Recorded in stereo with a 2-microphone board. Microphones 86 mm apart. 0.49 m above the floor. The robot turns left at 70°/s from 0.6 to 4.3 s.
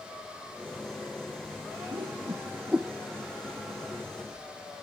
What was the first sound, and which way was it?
A whoosh, 70° right (ahead or behind).